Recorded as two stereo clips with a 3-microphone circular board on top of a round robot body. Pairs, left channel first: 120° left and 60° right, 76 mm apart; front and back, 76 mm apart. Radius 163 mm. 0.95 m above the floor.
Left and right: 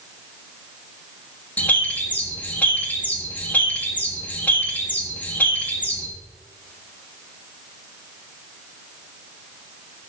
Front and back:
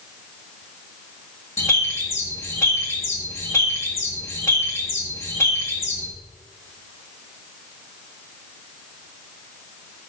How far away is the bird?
About 1.7 m.